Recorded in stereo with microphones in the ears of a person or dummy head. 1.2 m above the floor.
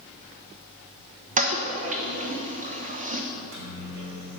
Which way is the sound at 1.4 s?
35° right (ahead or behind).